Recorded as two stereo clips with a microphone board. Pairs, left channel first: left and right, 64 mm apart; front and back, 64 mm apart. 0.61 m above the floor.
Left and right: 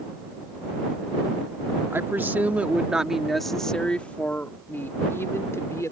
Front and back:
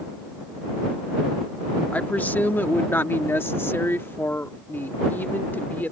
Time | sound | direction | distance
1.9 | a woman speaking | 55° right | ?